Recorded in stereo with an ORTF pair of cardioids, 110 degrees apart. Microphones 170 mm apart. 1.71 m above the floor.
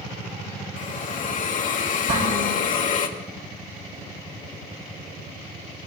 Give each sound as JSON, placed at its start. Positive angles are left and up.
{"t": 0.8, "sound": "a hiss", "azimuth_deg": 50, "distance_m": 2.0}
{"t": 2.1, "sound": "dishes clattering", "azimuth_deg": -55, "distance_m": 5.0}